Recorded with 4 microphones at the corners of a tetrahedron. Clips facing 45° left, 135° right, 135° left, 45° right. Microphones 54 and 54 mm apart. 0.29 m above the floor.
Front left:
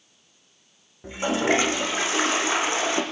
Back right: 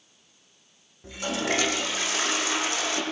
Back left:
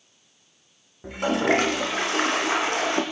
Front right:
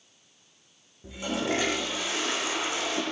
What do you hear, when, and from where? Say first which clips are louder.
1.0 s a toilet flushing: front left 6 dB, back left 8 dB; 105° left, 7.5 m